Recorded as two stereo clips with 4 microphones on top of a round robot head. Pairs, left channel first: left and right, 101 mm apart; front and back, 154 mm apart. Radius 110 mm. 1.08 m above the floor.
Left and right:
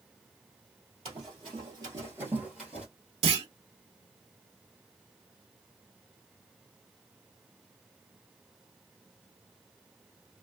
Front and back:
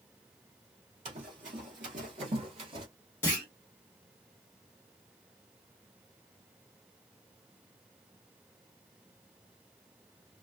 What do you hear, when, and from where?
1.1 s running footsteps: 130° right, 1.7 m; by 2.9 s 160° left, 1.2 m
3.2 s a clunk: 75° right, 1.0 m